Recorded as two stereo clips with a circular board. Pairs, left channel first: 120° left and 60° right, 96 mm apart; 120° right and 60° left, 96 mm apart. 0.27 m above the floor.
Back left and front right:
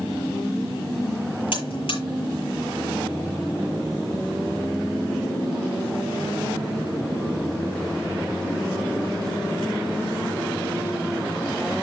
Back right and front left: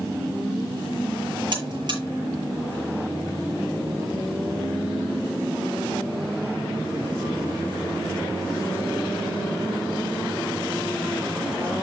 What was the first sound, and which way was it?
A buzzer, 100° left.